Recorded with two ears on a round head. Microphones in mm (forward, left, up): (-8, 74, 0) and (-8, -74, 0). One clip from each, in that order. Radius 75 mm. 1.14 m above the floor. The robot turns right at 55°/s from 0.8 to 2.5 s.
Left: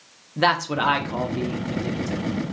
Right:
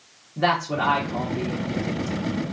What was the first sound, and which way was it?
A man speaking, 55° left (ahead or behind).